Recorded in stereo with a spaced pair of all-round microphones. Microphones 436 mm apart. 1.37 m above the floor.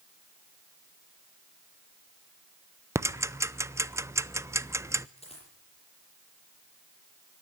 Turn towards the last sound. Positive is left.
turn(degrees=15)  # may be behind; listen again after turning